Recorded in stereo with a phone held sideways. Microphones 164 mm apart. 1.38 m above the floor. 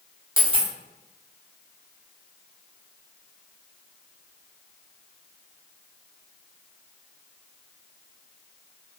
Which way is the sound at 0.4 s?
30° right (ahead or behind).